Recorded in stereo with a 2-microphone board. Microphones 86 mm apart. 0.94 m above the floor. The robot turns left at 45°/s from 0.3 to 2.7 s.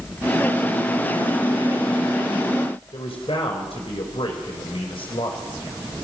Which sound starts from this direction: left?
A man speaking, at 2.9 s.